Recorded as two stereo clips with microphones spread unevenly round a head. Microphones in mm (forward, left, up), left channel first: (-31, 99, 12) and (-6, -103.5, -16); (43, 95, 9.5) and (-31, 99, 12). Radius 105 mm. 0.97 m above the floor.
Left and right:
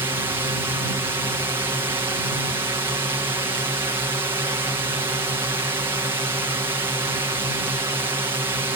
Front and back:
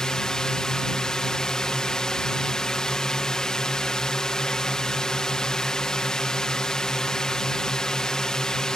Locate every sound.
0.0 s a drone: 65° right